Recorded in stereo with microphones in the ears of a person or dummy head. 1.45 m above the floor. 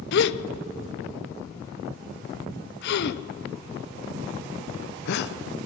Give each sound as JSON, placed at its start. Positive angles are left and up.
{"t": 0.1, "sound": "a gasp", "side_deg": 65, "distance_m": 0.8}